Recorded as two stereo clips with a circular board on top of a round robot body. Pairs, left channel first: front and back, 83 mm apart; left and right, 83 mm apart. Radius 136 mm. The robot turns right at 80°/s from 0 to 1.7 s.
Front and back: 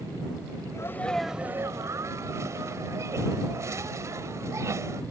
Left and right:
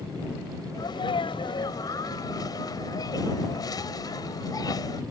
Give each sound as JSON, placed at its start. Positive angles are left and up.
{"t": 0.7, "sound": "a sneeze", "azimuth_deg": 50}